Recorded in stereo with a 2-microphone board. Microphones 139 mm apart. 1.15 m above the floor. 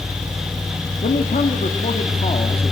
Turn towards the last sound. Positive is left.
turn(degrees=40)  # may be behind; listen again after turning